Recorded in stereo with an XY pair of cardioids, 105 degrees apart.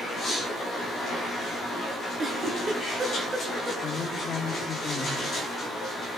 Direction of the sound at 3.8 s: 45° left.